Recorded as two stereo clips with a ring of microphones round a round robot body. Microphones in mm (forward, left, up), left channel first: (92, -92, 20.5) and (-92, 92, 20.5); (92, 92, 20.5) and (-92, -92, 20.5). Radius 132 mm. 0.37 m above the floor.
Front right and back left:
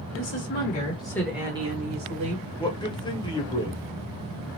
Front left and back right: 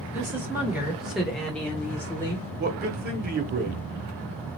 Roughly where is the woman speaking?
Ahead right.